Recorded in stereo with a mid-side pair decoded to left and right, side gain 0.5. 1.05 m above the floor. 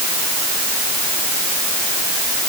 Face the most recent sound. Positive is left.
No sound to turn to.